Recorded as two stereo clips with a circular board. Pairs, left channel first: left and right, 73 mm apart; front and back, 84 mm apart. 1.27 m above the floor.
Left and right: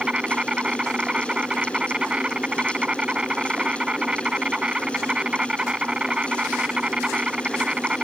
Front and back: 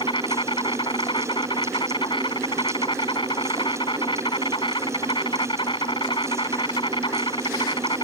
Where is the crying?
No crying in this recording.